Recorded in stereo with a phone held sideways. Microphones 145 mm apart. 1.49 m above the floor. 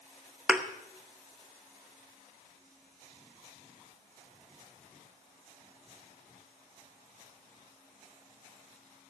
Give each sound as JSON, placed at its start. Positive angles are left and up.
{"t": 0.5, "sound": "a thud", "side_deg": -5, "distance_m": 0.9}